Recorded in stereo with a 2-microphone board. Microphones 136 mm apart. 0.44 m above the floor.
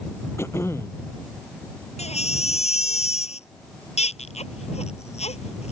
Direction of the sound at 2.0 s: 50° left (ahead or behind).